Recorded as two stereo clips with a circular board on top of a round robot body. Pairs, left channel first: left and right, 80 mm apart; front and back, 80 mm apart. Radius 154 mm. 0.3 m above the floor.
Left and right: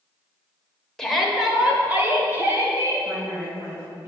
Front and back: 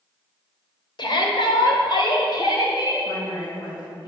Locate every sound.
1.0 s a shout: 5° left, 2 m; by 3.1 s 40° right, 3.5 m
3.0 s a woman speaking: 30° right, 3.5 m